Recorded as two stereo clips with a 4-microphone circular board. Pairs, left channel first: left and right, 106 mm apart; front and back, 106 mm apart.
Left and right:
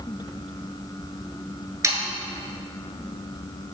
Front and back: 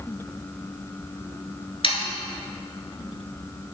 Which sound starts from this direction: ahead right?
Sawing, at 1.8 s.